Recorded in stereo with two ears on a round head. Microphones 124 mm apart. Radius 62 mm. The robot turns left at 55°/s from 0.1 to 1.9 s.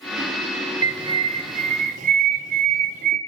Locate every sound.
0.8 s a bird: 30° right, 0.6 m; by 3.2 s 90° right, 0.6 m